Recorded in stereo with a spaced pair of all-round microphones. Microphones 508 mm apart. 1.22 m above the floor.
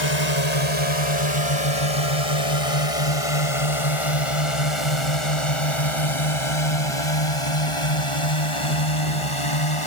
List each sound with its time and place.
0.0 s a drone: 65° left (ahead or behind); by 9.9 s 75° left (ahead or behind)